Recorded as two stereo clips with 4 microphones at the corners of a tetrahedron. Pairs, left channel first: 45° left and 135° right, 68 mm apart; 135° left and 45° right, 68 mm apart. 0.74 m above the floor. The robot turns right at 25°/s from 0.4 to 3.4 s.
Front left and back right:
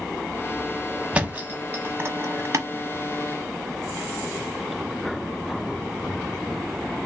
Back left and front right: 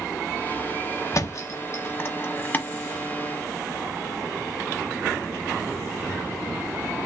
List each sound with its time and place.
1.1 s a thud: 160° left, 0.9 m; by 2.7 s 165° right, 0.9 m